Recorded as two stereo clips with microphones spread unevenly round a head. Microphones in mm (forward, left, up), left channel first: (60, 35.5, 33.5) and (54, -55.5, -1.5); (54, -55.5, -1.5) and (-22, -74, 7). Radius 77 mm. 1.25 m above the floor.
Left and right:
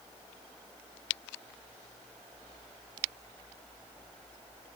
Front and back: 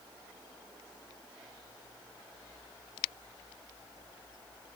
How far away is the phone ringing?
I don't hear a phone ringing.